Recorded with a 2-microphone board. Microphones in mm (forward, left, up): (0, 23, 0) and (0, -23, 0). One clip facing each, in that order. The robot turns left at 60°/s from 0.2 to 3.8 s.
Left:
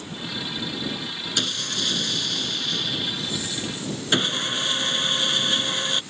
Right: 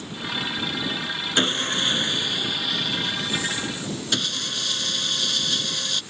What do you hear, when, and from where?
1.4 s sawing: 85° right; by 6.0 s 125° left